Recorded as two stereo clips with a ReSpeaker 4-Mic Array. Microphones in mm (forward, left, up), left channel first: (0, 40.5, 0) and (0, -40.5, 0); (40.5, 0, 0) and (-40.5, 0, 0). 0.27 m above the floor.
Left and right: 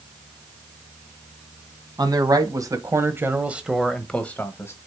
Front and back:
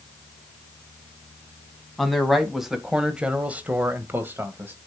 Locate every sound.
2.0 s a man speaking: 90° right, 1.8 m; by 4.8 s 130° left, 1.4 m